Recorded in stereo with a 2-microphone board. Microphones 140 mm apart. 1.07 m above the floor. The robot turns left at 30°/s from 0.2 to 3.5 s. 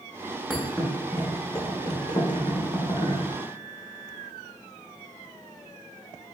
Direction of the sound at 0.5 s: 5° left (ahead or behind).